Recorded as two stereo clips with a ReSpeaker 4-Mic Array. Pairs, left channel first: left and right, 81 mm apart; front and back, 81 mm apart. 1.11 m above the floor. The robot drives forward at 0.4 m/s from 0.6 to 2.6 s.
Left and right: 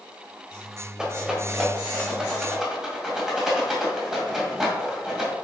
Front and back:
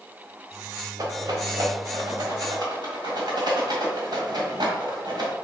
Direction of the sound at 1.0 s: 170° right.